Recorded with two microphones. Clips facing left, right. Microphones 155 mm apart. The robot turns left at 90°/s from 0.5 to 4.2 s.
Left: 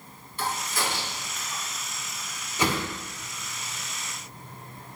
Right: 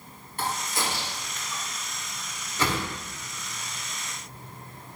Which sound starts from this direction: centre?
A whoosh, at 2.6 s.